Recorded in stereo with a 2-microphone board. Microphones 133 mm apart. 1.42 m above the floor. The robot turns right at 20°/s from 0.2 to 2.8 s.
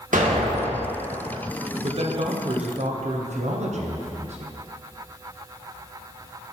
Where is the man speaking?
45° right (ahead or behind), 0.7 m; by 4.6 s 60° right (ahead or behind), 0.7 m.